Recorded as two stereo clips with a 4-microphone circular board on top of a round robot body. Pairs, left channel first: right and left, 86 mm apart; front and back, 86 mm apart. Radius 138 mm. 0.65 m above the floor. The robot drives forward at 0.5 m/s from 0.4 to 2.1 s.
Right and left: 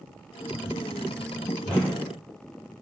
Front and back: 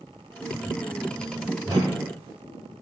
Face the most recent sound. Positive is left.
turn(degrees=-170)